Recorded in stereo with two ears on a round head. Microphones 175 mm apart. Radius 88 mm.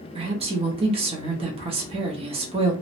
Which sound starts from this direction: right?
A woman speaking, at 0.1 s.